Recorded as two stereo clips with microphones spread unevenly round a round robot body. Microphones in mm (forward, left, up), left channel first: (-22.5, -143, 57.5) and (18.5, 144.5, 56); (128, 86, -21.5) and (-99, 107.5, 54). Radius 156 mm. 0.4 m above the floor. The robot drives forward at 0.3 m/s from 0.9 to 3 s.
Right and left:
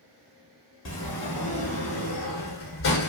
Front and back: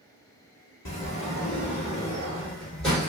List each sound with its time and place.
0.8 s a sliding door: 65° right, 1.0 m; by 3.1 s 105° right, 0.9 m